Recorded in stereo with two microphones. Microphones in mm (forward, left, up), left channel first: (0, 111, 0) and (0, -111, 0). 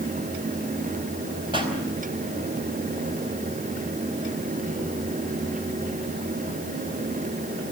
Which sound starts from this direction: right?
A pop, at 1.5 s.